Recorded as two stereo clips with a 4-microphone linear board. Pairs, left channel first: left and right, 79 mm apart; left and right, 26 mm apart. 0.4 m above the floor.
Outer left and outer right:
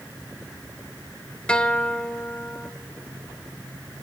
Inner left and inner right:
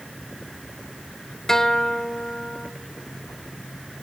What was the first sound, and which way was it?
A guitar, 15° left (ahead or behind).